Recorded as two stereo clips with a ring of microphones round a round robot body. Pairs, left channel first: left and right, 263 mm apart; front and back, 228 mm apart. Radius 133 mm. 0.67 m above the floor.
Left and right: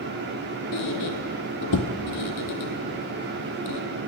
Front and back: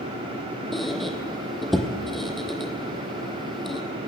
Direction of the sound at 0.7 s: 90° left.